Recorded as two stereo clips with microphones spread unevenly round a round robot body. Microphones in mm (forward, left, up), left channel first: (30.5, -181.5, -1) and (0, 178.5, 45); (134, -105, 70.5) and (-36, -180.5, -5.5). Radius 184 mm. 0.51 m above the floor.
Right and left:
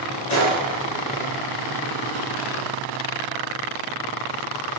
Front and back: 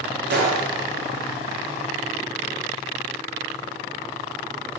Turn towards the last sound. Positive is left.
turn(degrees=-130)